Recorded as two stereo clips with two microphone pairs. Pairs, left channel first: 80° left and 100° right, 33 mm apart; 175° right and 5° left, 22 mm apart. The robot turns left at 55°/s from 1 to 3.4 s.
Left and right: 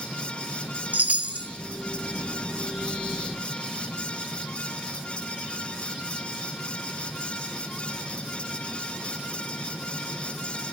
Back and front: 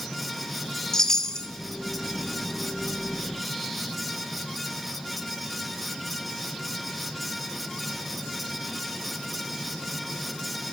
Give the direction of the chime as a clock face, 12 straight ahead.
4 o'clock.